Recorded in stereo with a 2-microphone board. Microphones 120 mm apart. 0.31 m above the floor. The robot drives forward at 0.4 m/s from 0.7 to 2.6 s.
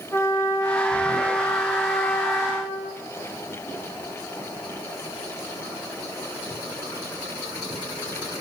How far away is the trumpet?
About 7.5 m.